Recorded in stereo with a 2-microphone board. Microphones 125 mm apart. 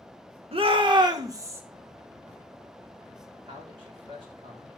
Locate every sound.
0.5 s a shout: 50° right (ahead or behind), 1.6 m; by 1.6 s 20° right (ahead or behind), 1.7 m
3.5 s a man speaking: 45° right (ahead or behind), 3.5 m